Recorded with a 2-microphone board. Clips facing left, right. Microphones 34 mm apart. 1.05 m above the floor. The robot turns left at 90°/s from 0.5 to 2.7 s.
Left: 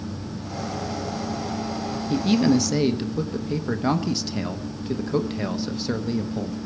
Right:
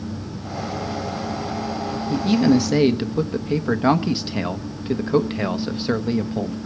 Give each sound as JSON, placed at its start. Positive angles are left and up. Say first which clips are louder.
{"t": 2.1, "sound": "a man speaking", "louder": "right 2 dB", "azimuth_deg": 25, "distance_m": 1.0}